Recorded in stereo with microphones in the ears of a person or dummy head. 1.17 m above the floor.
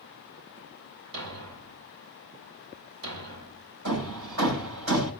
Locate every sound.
1.1 s a thud: 70° right (ahead or behind), 2 m
3.9 s hammering: 90° right, 7 m